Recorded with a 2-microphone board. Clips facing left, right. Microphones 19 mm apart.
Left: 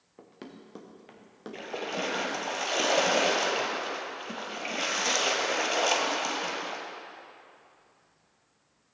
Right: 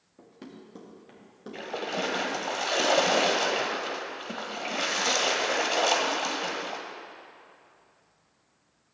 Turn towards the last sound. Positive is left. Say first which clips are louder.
# right 2 dB
turn(degrees=5)  # may be behind; listen again after turning